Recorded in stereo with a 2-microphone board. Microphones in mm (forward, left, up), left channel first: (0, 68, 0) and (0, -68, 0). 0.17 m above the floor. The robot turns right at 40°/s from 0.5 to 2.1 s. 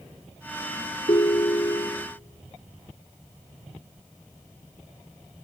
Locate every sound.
1.1 s a ringtone: 90° left, 0.8 m; by 2.1 s 130° left, 0.8 m